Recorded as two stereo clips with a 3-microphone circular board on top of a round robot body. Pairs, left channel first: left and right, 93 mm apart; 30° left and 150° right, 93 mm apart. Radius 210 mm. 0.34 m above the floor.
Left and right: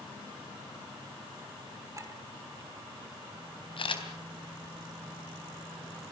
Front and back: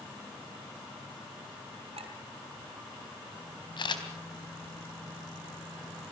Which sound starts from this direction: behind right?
A clink, at 1.9 s.